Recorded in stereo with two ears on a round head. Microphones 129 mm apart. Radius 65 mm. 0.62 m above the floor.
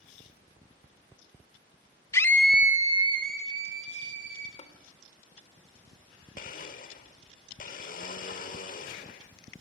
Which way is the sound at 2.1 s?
20° left (ahead or behind).